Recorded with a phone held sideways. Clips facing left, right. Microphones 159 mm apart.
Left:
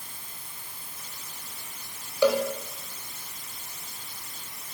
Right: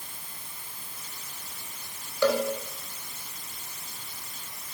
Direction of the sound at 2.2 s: 15° left (ahead or behind).